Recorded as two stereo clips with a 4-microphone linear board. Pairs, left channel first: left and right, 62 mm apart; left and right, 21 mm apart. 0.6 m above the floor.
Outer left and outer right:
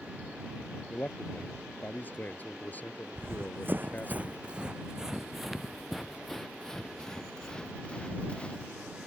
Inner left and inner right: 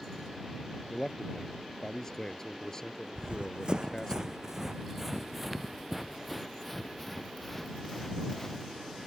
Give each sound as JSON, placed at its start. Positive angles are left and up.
{"t": 0.9, "sound": "a man speaking", "side_deg": 25}
{"t": 3.1, "sound": "running footsteps", "side_deg": -50}